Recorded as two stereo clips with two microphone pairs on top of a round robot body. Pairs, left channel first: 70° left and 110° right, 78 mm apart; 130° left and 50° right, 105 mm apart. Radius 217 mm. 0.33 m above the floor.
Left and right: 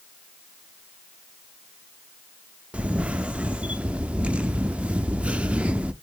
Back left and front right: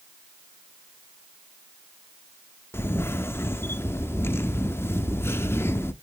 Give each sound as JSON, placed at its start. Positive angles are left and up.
{"t": 2.7, "sound": "a camera shutter", "azimuth_deg": -170, "distance_m": 0.7}